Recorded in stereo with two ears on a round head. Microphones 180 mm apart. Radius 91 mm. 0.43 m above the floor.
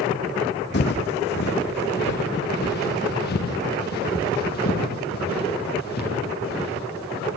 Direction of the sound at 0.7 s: 60° left (ahead or behind).